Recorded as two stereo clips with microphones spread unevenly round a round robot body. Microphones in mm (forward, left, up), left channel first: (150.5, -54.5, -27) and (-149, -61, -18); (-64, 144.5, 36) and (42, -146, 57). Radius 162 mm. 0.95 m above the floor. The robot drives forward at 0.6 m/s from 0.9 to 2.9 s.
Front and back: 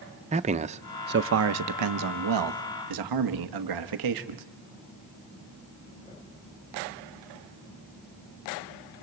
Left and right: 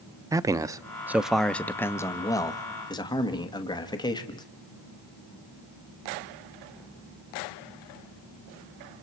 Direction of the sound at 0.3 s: 145° right.